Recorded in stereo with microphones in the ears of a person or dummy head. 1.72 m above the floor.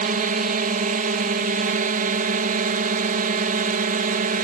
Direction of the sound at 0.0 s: 40° right (ahead or behind).